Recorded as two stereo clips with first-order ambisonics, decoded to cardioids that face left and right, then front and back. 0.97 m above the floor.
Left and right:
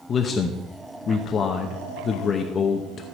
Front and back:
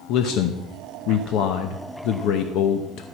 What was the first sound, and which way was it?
A man speaking, 30° left.